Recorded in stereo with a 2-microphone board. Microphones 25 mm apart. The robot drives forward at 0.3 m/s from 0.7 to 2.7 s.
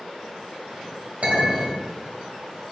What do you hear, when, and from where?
1.2 s a clink: 60° right (ahead or behind), 1.5 m